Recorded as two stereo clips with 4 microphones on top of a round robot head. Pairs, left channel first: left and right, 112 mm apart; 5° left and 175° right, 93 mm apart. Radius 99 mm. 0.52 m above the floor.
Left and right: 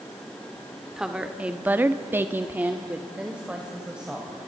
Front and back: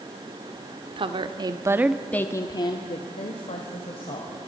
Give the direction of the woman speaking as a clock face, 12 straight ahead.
6 o'clock.